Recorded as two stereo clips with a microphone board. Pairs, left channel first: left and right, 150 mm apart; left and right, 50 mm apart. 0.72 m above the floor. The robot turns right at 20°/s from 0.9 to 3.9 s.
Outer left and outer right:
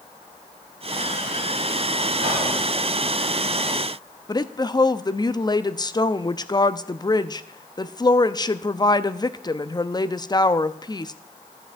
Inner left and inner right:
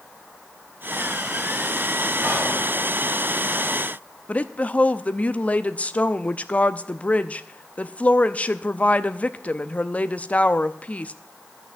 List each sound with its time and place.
2.2 s whispering: 50° right (ahead or behind), 7 m; by 2.5 s 40° right (ahead or behind), 7 m
4.3 s a woman speaking: 25° left (ahead or behind), 0.6 m